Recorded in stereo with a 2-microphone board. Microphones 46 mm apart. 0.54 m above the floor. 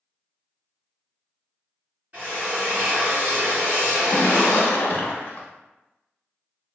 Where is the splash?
45° left (ahead or behind), 0.5 m.